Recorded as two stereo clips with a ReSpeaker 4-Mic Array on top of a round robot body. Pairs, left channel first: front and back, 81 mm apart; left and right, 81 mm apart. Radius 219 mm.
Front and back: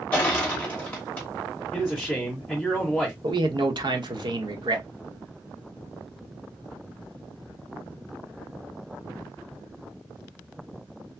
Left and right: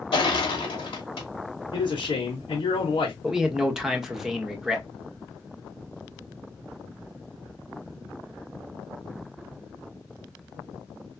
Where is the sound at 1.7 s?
80° left, 0.8 m.